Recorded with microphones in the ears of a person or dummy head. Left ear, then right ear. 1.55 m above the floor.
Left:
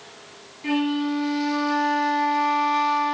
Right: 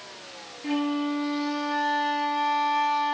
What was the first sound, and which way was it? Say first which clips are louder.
A flute: left 3 dB; 15° left (ahead or behind).